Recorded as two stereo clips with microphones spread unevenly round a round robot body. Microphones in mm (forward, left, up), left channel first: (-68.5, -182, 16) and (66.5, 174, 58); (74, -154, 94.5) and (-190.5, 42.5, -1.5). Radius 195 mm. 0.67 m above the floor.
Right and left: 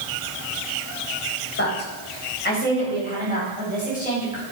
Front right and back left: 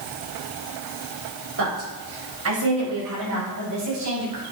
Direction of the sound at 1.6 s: 175° right.